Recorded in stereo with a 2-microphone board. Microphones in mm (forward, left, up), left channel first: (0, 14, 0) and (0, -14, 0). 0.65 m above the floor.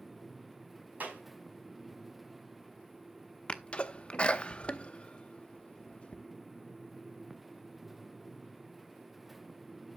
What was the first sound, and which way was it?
A clap, 65° right (ahead or behind).